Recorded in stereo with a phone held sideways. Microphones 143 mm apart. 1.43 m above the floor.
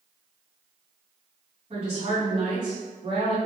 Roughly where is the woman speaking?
Right.